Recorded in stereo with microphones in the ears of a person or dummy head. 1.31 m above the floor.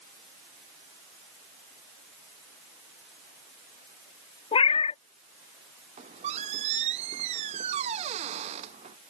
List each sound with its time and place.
4.5 s a cat meowing: 30° left (ahead or behind)
6.0 s a squeak: 35° right (ahead or behind)